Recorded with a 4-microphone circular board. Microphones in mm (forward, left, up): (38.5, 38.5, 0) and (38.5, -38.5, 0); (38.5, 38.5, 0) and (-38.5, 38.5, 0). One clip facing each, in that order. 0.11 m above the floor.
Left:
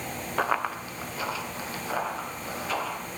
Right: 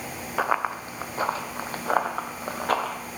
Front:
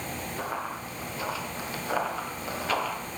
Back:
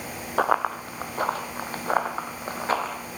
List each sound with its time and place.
0.4 s running footsteps: 175° right, 0.5 m; by 3.0 s 120° right, 1.7 m